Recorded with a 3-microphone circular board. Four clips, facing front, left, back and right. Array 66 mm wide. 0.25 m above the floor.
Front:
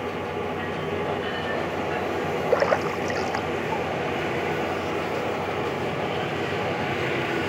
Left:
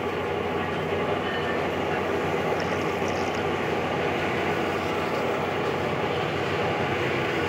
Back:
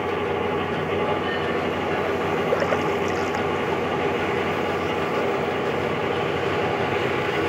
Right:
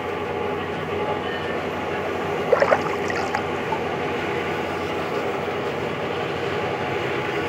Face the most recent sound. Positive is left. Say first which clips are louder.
# right 8 dB, front 3 dB
turn(degrees=-80)